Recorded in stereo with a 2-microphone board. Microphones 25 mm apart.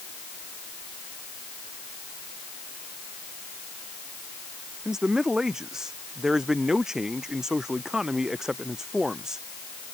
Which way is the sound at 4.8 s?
25° right (ahead or behind).